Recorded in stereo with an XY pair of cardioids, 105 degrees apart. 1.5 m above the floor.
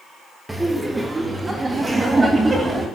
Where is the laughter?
15° right, 1.6 m; by 2.9 s 25° right, 3 m.